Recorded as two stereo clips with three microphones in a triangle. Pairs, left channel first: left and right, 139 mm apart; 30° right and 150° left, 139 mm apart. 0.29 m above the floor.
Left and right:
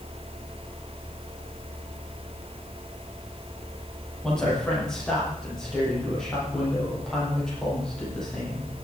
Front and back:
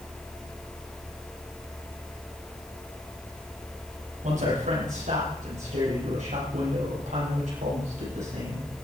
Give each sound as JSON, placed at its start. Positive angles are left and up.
{"t": 4.2, "sound": "a man speaking", "azimuth_deg": 175, "distance_m": 8.5}